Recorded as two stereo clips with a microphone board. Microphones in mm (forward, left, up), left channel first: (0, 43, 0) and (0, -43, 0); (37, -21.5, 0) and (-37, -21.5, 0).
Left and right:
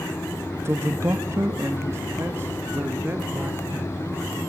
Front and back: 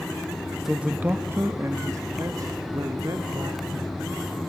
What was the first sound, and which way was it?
A man speaking, 100° right.